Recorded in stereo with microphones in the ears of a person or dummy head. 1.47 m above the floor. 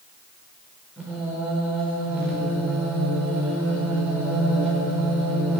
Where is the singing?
5° right (ahead or behind), 4.5 m.